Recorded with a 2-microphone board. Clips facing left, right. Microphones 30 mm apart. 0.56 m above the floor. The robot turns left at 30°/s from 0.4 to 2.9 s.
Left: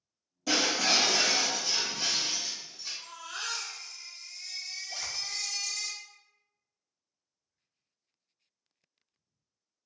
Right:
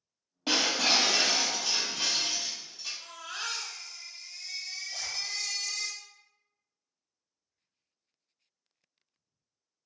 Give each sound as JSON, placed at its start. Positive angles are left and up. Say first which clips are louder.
{"t": 0.5, "sound": "breaking glass", "louder": "right 1 dB", "azimuth_deg": -45, "distance_m": 1.2}
{"t": 3.0, "sound": "a baby crying", "louder": "left 1 dB", "side_deg": -40, "distance_m": 1.0}
{"t": 4.9, "sound": "a zipper", "louder": "left 1 dB", "side_deg": 35, "distance_m": 0.5}